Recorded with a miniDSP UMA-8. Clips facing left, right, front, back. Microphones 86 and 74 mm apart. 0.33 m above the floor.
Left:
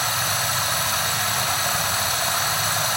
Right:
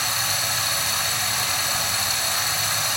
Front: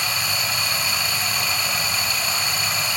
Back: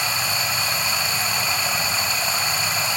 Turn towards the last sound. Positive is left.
turn(degrees=120)